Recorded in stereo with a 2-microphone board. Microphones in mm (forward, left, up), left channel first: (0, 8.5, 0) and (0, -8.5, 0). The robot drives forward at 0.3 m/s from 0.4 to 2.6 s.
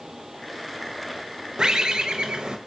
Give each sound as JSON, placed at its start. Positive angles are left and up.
{"t": 1.6, "sound": "a bird", "side_deg": -45, "distance_m": 0.5}